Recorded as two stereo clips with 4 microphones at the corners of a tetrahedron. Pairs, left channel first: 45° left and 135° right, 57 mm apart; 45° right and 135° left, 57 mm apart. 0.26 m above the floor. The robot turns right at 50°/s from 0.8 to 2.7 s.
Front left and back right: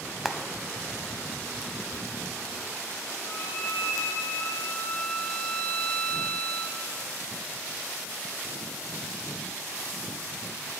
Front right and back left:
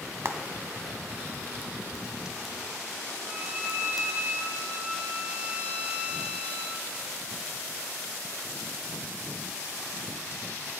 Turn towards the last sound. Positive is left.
turn(degrees=75)